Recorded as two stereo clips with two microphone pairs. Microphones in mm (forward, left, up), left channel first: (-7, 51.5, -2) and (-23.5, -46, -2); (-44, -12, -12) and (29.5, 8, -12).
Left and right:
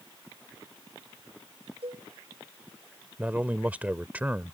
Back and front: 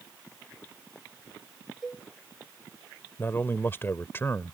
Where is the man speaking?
155° right.